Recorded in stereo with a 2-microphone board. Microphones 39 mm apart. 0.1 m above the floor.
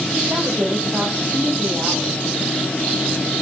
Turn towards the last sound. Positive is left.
turn(degrees=-45)  # may be behind; listen again after turning